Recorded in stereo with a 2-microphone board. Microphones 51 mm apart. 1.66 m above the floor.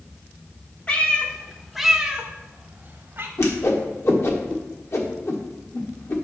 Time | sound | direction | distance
0.9 | a cat meowing | 30° left (ahead or behind) | 1.5 m
3.4 | a whoosh | 60° left (ahead or behind) | 1.6 m